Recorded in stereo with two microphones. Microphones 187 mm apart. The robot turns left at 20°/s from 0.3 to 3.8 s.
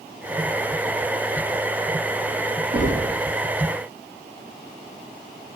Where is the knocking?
75° right (ahead or behind), 3.5 m; by 3.2 s 80° right, 3.5 m.